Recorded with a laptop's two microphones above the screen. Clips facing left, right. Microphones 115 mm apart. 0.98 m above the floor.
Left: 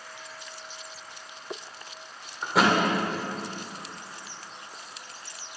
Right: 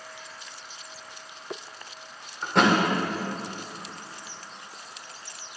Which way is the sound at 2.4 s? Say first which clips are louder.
Right 1 dB; 5° left (ahead or behind).